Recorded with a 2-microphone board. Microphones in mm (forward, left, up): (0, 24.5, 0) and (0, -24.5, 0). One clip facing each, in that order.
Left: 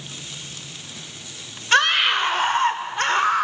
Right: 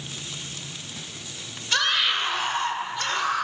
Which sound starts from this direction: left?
A scream, at 1.7 s.